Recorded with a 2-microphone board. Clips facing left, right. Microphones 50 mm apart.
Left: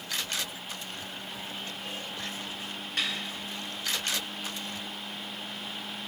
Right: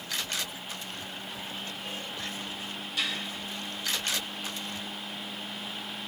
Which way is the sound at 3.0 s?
50° left (ahead or behind).